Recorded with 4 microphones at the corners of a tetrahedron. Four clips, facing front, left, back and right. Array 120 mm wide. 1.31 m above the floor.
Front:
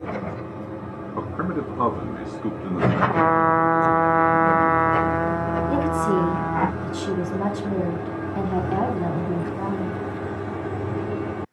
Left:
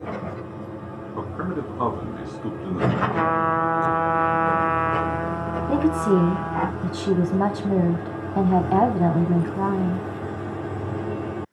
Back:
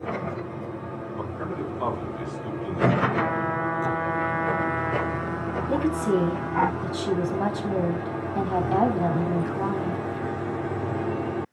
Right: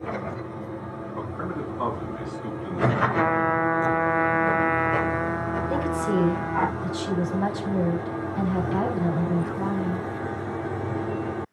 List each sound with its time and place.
1.2 s a man speaking: 20° left, 5 m
3.0 s a trumpet: 15° left, 0.7 m
5.7 s a woman speaking: 100° left, 4 m